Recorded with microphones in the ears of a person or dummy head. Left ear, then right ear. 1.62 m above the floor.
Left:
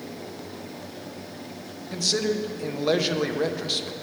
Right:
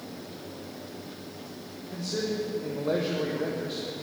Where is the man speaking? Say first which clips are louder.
Left 7 dB; 75° left (ahead or behind), 1.2 m.